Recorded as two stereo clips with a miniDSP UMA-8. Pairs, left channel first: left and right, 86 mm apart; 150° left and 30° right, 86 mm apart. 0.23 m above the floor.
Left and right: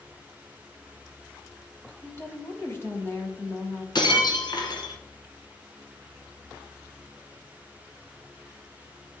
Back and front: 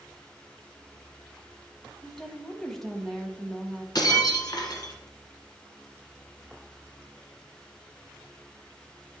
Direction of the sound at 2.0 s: 70° left.